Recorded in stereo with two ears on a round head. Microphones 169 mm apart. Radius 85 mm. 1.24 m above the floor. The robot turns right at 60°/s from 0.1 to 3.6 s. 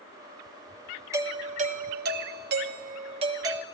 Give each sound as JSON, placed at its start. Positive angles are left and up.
{"t": 1.1, "sound": "a doorbell", "azimuth_deg": -160, "distance_m": 0.8}